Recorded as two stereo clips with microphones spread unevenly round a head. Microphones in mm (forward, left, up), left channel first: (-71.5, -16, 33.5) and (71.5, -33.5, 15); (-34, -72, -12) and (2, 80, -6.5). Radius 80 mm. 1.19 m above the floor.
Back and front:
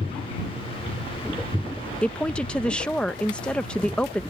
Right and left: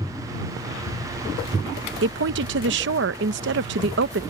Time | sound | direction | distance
2.0 | a woman speaking | 90° left | ?